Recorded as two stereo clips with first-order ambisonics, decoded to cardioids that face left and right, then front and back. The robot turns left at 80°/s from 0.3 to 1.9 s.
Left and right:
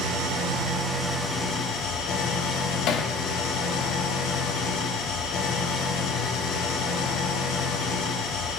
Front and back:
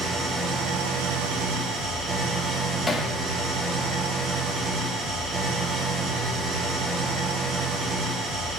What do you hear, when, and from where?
0.0 s an engine running: 115° right, 2.5 m; by 8.6 s 120° left, 2.5 m
2.9 s hammering: 85° left, 1.3 m